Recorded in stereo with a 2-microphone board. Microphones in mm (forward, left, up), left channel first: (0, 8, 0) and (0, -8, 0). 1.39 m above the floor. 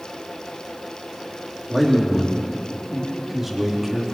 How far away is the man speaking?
About 2.5 m.